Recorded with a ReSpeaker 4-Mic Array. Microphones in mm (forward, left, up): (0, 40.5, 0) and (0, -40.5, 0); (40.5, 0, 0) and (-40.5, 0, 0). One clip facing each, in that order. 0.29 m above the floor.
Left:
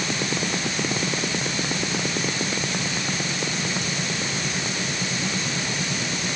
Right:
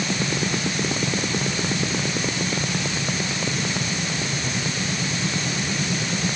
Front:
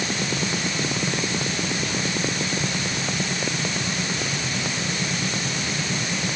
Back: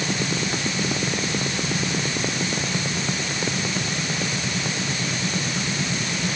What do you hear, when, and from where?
Only background noise.